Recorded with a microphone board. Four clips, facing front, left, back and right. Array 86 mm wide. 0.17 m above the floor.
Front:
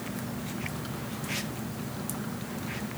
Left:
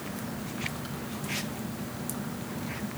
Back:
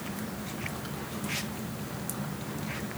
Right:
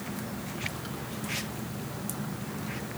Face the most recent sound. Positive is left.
No sound to turn to.